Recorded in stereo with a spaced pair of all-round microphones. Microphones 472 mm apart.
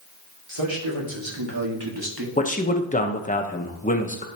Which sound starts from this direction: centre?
A man speaking, at 2.4 s.